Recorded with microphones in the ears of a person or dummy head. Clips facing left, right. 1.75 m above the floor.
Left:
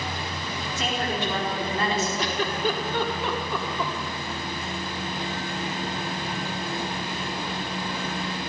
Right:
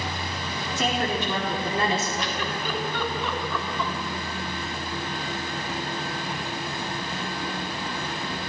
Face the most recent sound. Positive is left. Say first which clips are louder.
# left 3 dB
turn(degrees=30)  # may be behind; listen again after turning